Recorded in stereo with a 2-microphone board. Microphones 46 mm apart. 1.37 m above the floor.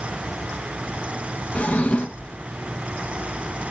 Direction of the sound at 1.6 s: 30° left (ahead or behind).